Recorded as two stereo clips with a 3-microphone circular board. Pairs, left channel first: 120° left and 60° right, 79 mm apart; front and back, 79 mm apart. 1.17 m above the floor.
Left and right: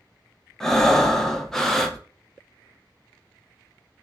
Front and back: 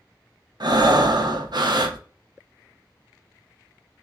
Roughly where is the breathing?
Behind right.